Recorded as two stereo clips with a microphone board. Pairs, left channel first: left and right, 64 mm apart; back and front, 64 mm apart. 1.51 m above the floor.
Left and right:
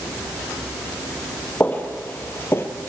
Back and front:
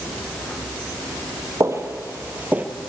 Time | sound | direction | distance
1.6 | footsteps | 30° left | 3 m